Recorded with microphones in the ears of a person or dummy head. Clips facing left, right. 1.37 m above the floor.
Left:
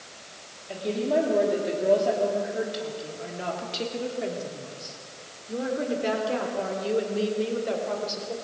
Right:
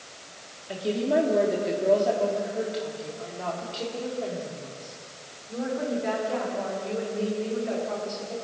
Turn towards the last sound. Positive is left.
turn(degrees=55)  # may be behind; listen again after turning